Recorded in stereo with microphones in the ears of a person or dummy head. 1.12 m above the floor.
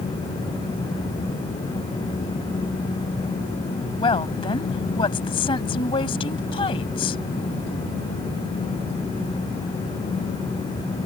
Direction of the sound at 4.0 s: 30° left (ahead or behind).